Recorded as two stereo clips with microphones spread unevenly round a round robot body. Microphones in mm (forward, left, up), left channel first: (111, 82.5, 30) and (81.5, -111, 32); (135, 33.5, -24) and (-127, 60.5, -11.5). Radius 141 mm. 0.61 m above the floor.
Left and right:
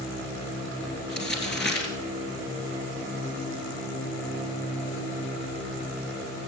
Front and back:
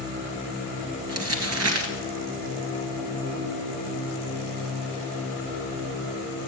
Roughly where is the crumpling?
Behind left.